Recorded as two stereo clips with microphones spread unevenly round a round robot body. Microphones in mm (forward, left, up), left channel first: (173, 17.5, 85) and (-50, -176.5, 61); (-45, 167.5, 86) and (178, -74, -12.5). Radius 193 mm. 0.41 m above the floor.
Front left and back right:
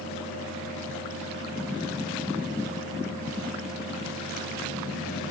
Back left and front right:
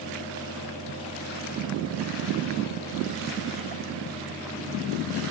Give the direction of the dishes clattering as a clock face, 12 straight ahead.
I don't hear dishes clattering.